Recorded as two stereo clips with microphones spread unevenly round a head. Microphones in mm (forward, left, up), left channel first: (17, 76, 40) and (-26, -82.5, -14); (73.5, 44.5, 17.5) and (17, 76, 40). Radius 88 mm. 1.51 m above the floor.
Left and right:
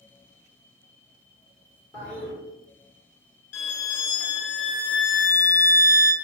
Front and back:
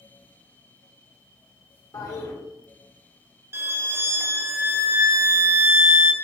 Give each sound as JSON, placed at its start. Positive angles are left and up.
{"t": 1.9, "sound": "a toilet flushing", "azimuth_deg": -5, "distance_m": 1.7}
{"t": 3.5, "sound": "a violin", "azimuth_deg": 95, "distance_m": 0.9}